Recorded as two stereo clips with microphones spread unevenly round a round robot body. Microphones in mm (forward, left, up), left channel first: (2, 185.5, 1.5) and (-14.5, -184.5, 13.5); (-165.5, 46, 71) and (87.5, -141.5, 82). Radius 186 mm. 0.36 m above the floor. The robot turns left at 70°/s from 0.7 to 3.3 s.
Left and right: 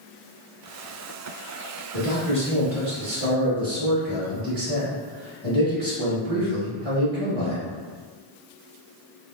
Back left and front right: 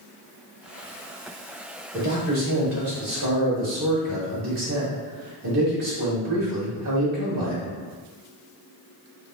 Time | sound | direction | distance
1.9 | a man speaking | 45° left | 2.0 m